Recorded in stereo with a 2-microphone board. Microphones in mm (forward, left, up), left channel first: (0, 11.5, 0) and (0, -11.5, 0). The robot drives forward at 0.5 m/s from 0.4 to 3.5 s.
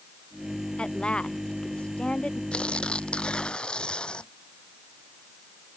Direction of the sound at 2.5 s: 50° left (ahead or behind).